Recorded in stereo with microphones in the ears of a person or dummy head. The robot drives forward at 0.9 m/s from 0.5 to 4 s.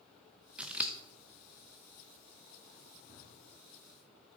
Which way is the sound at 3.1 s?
50° right (ahead or behind).